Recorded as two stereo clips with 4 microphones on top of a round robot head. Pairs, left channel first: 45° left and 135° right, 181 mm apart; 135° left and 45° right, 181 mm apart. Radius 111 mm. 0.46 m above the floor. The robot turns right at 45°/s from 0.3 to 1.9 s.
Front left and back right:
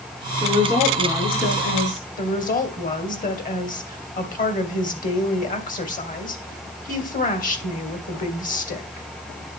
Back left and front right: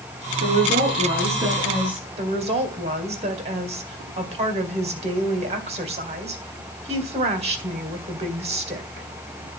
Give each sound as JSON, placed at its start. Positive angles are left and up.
{"t": 0.4, "sound": "a woman speaking", "azimuth_deg": -30, "distance_m": 5.5}
{"t": 2.2, "sound": "a woman speaking", "azimuth_deg": 5, "distance_m": 2.0}